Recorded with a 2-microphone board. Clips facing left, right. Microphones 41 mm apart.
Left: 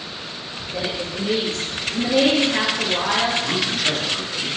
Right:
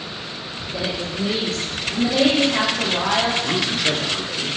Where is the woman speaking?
25° left (ahead or behind), 1.6 m.